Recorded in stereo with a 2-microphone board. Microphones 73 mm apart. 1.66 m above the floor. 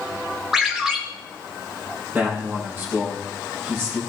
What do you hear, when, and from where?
0.5 s a ringtone: 10° right (ahead or behind), 2 m
2.1 s a man speaking: 30° right (ahead or behind), 4 m